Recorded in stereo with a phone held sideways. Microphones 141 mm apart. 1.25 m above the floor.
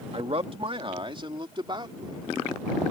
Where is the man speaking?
45° right (ahead or behind); by 2.2 s 35° right (ahead or behind).